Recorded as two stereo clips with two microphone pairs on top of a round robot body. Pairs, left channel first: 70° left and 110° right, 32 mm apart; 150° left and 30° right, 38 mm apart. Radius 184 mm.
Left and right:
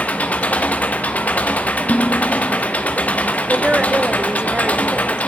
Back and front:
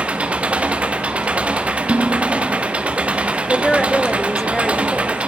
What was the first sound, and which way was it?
An engine running, 35° left.